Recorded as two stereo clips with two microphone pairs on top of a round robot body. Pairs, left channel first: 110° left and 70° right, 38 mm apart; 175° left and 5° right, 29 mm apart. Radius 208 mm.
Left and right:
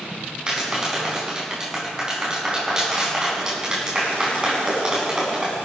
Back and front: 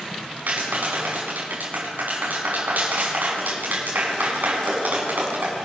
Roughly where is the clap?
Ahead.